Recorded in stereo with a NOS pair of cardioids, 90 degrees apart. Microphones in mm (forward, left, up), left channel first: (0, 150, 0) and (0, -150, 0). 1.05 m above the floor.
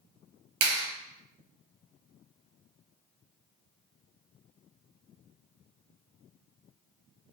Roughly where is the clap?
Ahead right.